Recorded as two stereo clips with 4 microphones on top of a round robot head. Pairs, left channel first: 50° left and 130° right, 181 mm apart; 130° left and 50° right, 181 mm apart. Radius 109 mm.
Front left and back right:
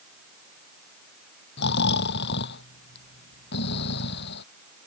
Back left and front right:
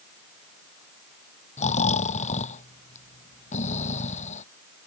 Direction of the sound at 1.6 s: 80° left.